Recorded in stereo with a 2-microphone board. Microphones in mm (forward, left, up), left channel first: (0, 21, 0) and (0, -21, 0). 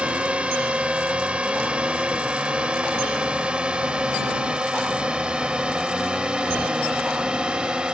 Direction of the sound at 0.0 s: 25° right (ahead or behind).